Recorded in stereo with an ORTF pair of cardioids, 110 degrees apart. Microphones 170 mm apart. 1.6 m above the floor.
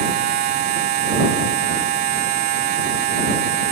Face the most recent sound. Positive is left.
turn(degrees=-65)